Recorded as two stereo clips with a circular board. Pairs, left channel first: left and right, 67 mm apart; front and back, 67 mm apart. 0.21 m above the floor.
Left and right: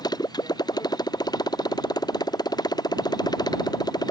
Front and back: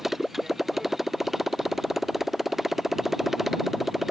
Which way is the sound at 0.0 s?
95° left.